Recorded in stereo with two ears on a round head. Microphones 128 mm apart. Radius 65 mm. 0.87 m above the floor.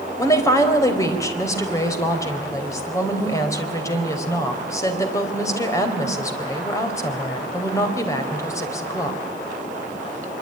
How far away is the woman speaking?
About 4 m.